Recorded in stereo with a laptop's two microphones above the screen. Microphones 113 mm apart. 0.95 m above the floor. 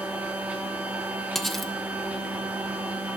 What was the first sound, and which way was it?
A machine running, 15° right (ahead or behind).